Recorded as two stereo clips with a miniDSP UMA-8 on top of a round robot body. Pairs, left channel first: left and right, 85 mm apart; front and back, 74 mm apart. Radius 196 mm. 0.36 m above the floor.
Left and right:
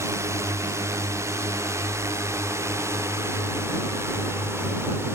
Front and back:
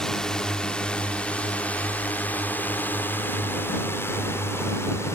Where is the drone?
75° right; by 5.2 s 40° right.